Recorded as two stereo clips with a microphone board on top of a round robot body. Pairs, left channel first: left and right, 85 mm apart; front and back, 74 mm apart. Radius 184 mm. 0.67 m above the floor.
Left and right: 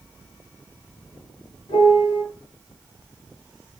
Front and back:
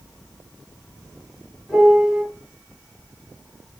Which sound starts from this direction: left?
A piano, at 1.7 s.